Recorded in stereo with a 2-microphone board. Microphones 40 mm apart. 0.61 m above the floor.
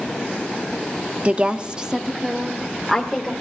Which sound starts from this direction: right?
A woman speaking, at 1.2 s.